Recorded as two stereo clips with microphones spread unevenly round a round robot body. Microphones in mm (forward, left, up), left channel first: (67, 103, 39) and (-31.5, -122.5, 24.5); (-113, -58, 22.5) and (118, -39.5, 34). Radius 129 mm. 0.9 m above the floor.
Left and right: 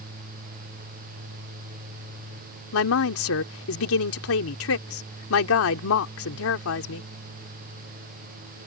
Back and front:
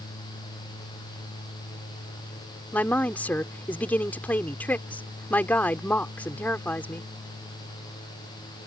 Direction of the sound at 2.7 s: 100° left.